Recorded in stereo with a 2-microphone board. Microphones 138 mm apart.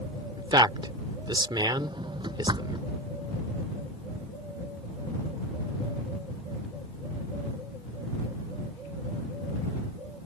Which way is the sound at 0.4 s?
35° right (ahead or behind).